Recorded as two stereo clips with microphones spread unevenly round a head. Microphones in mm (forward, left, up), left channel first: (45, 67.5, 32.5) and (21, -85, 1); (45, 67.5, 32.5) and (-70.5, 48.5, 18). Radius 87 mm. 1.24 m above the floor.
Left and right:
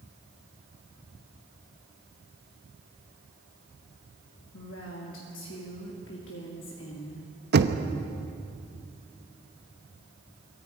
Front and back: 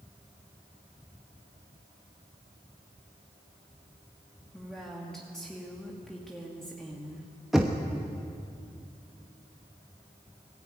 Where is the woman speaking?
95° left, 2 m.